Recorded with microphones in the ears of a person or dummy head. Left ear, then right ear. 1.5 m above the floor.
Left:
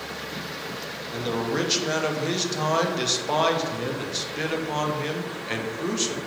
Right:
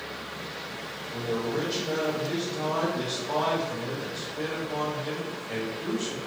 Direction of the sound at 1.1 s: 75° left (ahead or behind).